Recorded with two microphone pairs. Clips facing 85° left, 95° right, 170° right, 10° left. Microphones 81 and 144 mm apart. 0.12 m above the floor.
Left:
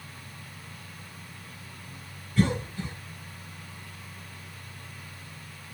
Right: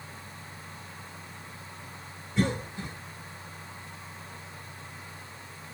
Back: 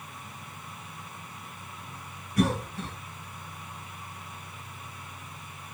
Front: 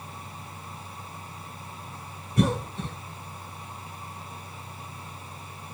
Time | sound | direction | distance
2.4 | a cough | 40° right | 1.3 m